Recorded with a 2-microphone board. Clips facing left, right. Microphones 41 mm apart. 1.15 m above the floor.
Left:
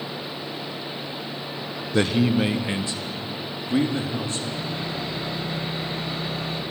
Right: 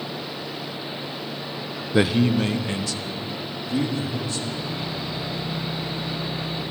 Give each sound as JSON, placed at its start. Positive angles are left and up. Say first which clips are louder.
{"t": 1.9, "sound": "a man speaking", "louder": "right 1 dB", "side_deg": -10, "distance_m": 0.8}
{"t": 4.5, "sound": "sawing", "louder": "even", "side_deg": 75, "distance_m": 5.5}